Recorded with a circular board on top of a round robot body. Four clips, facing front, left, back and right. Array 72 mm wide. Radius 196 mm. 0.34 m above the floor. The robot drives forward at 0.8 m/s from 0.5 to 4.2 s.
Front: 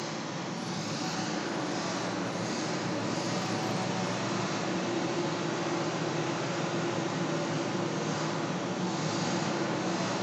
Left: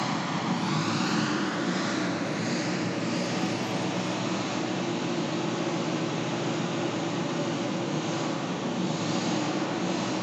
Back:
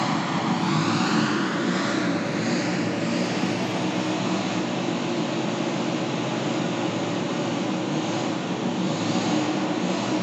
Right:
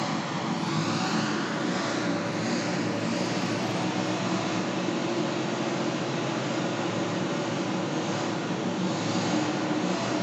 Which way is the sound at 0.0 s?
175° left.